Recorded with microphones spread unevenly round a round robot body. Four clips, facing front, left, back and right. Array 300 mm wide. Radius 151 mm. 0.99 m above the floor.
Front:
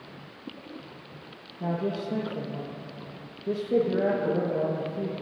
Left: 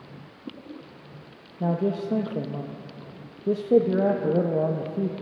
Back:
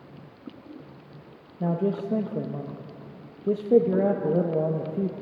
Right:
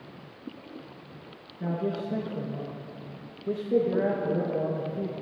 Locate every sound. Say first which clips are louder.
1.6 s a man speaking: left 5 dB, back 3 dB; 130° left, 0.8 m